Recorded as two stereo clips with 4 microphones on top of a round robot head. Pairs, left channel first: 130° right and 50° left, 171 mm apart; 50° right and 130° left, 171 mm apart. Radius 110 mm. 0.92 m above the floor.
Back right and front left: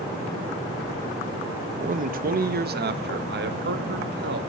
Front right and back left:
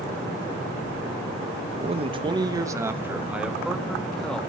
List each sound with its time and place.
1.8 s a man speaking: 85° left, 1.1 m; by 4.4 s 35° left, 1.9 m